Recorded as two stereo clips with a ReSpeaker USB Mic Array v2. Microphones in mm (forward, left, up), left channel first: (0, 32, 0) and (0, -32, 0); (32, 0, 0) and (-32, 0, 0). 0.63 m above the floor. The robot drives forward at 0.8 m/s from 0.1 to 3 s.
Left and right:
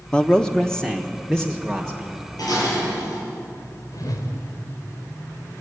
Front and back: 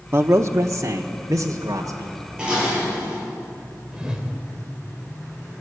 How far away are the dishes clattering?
About 8.5 m.